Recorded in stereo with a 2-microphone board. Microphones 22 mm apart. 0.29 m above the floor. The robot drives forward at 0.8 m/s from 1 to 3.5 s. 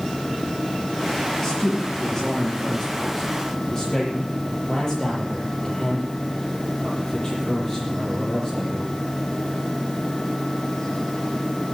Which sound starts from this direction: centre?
A man speaking, at 1.4 s.